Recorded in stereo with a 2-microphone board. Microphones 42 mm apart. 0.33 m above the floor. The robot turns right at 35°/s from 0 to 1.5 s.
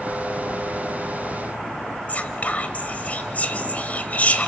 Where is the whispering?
40° left (ahead or behind), 1.4 m.